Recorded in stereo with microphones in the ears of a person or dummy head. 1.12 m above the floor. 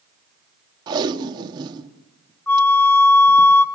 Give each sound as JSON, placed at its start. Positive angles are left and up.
{"t": 0.9, "sound": "tape being pulled", "side_deg": -25, "distance_m": 1.1}
{"t": 2.5, "sound": "a flute", "side_deg": 10, "distance_m": 0.9}